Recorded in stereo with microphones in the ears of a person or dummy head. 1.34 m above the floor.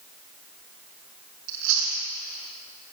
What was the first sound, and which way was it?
Chewing, 70° right (ahead or behind).